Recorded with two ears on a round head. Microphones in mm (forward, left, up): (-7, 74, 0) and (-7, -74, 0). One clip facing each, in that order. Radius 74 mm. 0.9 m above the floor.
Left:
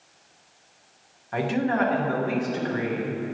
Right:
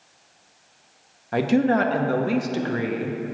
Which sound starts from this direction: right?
A man speaking, at 1.3 s.